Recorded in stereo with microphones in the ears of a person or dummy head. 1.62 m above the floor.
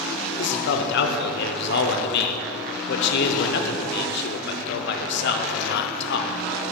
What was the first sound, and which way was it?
A man speaking, 65° left (ahead or behind).